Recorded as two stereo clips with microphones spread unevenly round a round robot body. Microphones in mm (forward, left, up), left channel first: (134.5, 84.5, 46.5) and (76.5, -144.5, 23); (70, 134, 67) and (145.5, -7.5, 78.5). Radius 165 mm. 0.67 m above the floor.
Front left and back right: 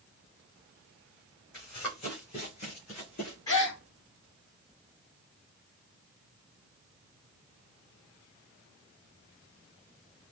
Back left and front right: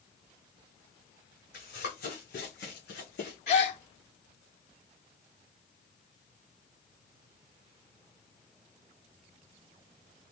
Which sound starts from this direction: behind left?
A gasp, at 3.5 s.